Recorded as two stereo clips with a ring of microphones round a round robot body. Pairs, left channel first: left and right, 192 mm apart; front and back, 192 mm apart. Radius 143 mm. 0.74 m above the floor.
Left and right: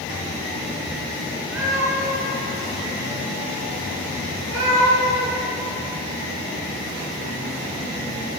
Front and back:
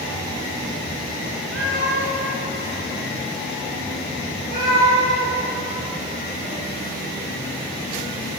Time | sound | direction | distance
1.5 | a cat meowing | 130° right | 5 m